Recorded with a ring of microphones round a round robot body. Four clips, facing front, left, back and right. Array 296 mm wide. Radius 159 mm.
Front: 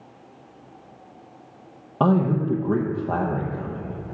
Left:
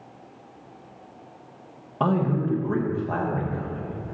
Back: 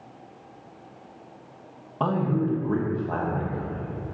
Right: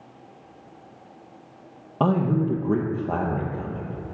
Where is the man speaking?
35° right, 0.8 m.